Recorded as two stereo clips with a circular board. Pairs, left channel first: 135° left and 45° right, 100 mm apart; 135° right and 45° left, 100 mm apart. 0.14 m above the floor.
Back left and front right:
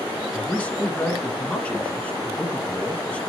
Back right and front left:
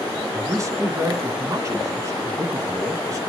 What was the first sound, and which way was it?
A man speaking, 70° left.